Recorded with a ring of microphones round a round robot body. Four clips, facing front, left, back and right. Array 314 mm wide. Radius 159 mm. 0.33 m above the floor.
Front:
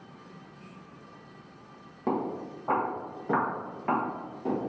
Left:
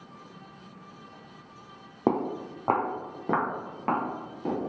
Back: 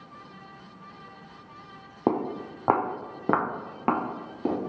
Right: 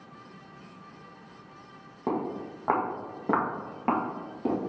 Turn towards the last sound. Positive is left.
turn(degrees=-170)